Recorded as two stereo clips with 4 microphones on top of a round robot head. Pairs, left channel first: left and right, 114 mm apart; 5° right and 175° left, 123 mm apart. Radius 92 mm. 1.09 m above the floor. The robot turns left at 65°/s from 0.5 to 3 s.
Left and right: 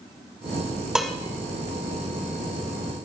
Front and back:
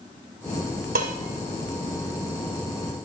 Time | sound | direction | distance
0.9 | dishes clattering | 175° right | 2.5 m